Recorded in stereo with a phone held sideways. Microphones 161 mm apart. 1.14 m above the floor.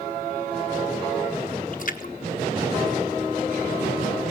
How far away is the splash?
About 1.2 m.